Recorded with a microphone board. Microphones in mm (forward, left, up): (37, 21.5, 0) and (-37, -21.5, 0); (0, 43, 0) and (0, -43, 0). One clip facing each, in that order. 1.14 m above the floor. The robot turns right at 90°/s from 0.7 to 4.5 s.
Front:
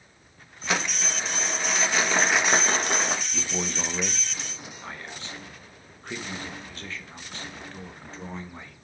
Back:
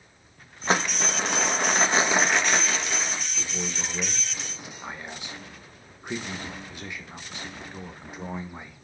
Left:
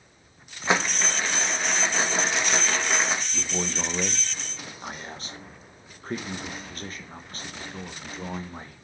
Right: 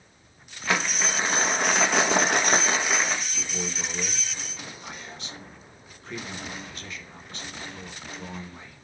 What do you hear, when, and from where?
0.7 s crumpling: 155° left, 1.3 m; by 3.2 s 25° left, 1.3 m
3.3 s a man speaking: 30° left, 1.2 m; by 8.8 s 135° left, 1.2 m